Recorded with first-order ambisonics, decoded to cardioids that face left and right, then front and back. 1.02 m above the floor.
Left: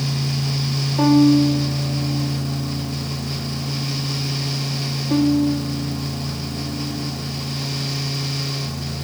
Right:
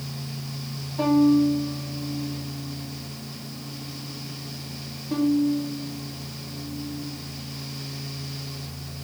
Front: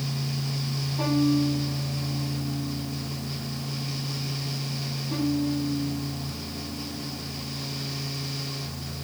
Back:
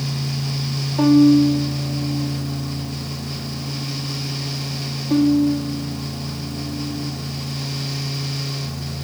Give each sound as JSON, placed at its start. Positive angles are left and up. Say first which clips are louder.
{"t": 1.0, "sound": "a violin", "louder": "left 4 dB, back 11 dB", "azimuth_deg": 140, "distance_m": 2.0}